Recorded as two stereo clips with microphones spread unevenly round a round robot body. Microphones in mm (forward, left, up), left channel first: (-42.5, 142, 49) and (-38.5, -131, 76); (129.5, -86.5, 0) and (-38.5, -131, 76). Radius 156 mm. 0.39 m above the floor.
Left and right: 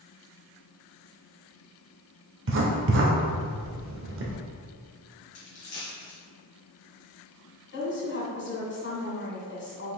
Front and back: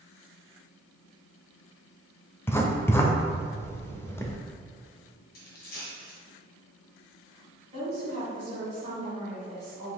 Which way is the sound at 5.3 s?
30° left.